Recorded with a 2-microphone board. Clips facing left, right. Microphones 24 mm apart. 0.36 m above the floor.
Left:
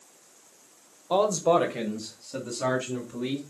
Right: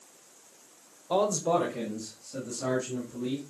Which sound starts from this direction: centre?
A man speaking, at 1.1 s.